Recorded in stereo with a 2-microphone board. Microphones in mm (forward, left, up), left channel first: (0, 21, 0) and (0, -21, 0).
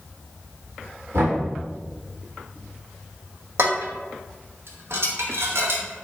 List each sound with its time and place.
1.1 s knocking: 70° right (ahead or behind), 1.9 m
3.6 s dishes clattering: 70° right (ahead or behind), 0.8 m